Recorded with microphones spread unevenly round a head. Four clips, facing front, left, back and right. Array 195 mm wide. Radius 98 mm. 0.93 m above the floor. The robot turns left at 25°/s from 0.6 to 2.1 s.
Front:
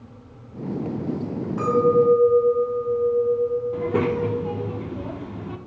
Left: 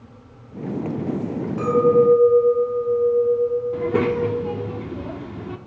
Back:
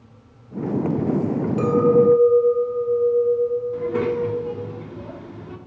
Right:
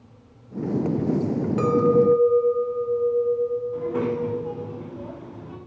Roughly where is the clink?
Behind right.